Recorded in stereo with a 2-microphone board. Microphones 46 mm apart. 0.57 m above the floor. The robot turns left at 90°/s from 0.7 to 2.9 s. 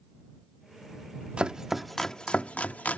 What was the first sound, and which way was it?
Chopping, 25° right (ahead or behind).